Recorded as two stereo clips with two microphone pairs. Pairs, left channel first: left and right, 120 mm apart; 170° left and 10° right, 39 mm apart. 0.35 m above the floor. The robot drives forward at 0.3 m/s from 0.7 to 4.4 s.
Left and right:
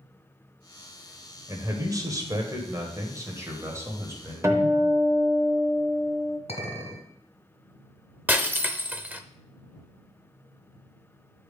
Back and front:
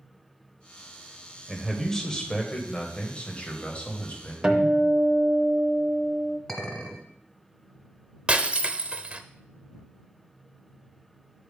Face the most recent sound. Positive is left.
turn(degrees=-40)